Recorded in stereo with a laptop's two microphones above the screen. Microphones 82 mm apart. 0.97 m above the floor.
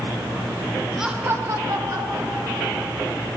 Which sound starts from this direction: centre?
Laughter, at 1.0 s.